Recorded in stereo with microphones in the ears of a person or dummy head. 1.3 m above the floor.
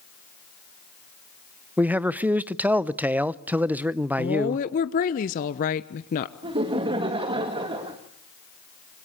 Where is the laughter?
25° right (ahead or behind), 1.8 m.